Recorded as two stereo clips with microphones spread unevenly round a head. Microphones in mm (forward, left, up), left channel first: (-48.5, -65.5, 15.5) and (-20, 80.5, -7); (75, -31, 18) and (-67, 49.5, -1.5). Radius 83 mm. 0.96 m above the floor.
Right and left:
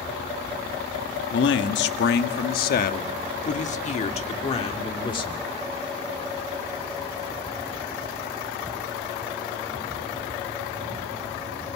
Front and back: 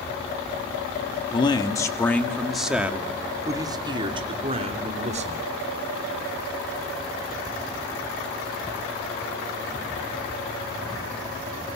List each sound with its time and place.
1.3 s a man speaking: 95° right, 1.9 m; by 5.4 s 160° right, 3 m